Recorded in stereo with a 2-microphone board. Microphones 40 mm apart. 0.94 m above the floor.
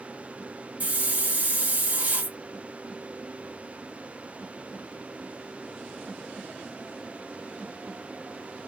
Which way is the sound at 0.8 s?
40° right (ahead or behind).